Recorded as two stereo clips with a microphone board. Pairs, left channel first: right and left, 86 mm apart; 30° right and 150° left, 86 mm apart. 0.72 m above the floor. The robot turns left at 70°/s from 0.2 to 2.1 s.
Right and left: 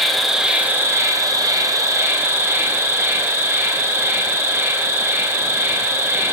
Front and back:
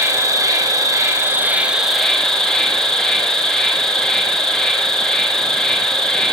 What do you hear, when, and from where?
0.0 s an insect: straight behind, 0.8 m; by 6.3 s 50° left, 0.8 m